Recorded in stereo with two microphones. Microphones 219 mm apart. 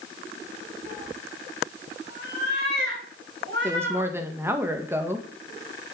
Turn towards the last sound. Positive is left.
turn(degrees=-10)  # may be behind; listen again after turning